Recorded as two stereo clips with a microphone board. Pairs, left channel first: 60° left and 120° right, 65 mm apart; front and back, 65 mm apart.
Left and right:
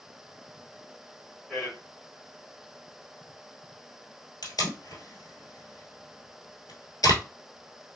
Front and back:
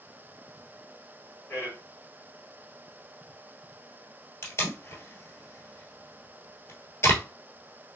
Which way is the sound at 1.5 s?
30° right.